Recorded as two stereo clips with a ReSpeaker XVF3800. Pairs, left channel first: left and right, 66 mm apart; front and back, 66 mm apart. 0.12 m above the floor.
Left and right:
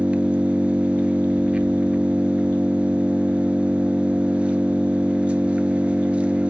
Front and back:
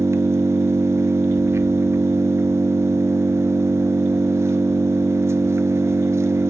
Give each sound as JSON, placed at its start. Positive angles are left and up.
{"t": 0.0, "sound": "an engine running", "azimuth_deg": -155, "distance_m": 0.8}